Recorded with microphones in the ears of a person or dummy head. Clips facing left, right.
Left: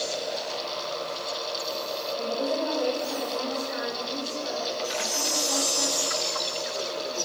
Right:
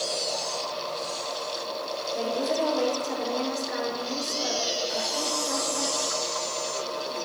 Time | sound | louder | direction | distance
2.1 | a woman speaking | right 1 dB | 85° right | 7 m
4.8 | a chime | right 1 dB | 35° left (ahead or behind) | 3 m